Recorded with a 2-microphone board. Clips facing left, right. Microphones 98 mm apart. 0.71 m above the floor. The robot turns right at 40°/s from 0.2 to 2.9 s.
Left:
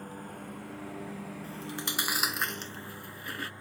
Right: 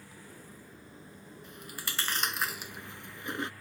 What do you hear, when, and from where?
0.0 s a lawn mower: 50° left; by 3.6 s 155° left
1.4 s chewing: 40° left (ahead or behind); by 3.5 s 20° right (ahead or behind)